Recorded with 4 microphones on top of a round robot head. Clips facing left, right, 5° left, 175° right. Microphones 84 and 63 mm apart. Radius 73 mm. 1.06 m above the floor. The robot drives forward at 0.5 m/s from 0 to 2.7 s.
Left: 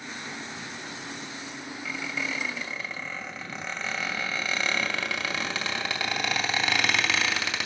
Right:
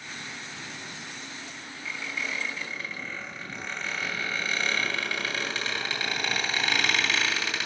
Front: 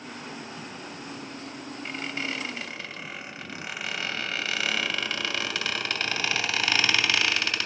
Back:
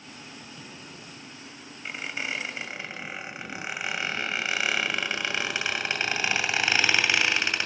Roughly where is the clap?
No clap in this recording.